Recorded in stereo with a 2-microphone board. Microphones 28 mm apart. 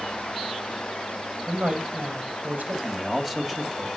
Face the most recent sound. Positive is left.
turn(degrees=-15)  # may be behind; listen again after turning